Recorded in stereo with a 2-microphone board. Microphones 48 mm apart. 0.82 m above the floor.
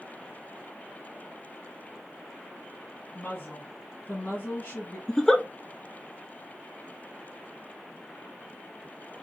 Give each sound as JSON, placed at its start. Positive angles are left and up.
{"t": 3.1, "sound": "a woman speaking", "side_deg": 35, "distance_m": 1.8}
{"t": 5.1, "sound": "a giggle", "side_deg": 10, "distance_m": 0.5}